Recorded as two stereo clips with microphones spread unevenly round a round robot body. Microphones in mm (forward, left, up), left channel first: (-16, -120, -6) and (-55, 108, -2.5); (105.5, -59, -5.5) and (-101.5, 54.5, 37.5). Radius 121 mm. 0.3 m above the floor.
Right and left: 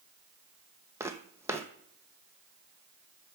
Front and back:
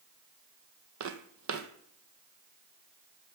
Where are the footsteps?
Straight behind, 0.9 m.